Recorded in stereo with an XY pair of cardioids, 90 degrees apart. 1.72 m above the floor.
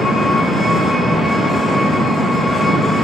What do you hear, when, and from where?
0.0 s an engine running: straight ahead, 1.1 m